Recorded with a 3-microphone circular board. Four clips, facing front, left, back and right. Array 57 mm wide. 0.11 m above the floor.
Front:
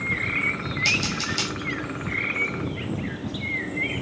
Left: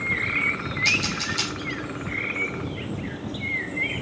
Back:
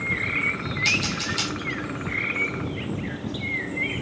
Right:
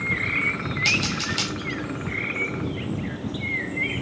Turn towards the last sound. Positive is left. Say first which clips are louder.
# even, even
turn(degrees=-80)